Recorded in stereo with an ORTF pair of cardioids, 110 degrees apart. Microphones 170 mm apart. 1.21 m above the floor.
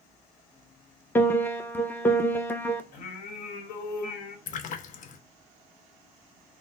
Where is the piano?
10° left, 0.6 m.